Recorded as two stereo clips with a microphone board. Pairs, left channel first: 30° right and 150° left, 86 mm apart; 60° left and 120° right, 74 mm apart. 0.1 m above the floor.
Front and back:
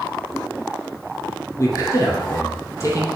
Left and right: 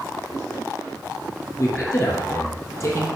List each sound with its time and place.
1.6 s a man speaking: 15° left, 2.5 m